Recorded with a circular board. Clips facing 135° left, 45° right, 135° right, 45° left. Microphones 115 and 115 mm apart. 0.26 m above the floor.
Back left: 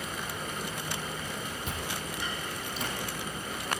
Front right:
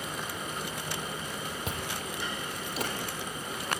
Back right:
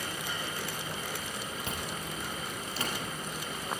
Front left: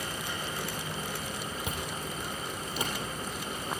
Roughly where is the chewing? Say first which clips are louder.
Even, front left 1 dB; ahead right.